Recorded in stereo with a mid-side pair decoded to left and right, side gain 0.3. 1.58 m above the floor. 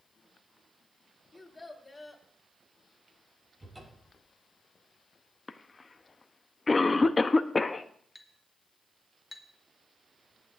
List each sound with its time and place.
1.3 s a child speaking: 25° left, 4 m
3.6 s a cupboard door: 25° right, 6.5 m
5.5 s a cough: 35° left, 0.8 m
8.2 s a clink: 10° left, 1.6 m